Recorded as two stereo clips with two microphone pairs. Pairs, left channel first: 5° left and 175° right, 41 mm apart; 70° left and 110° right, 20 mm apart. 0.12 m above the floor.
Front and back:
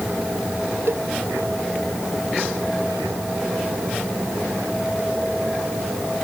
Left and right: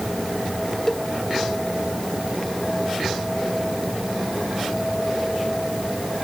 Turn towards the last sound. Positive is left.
turn(degrees=155)